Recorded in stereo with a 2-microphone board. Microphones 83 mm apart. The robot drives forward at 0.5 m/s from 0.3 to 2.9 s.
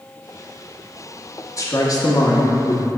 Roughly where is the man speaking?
Left.